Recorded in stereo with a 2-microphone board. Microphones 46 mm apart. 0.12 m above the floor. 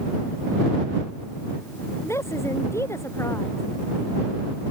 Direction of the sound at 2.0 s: 85° left.